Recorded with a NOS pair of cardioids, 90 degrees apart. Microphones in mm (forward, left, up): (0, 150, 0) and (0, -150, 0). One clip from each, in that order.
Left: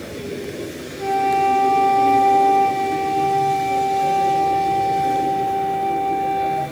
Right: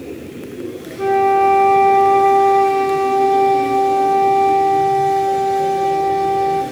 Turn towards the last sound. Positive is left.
turn(degrees=-60)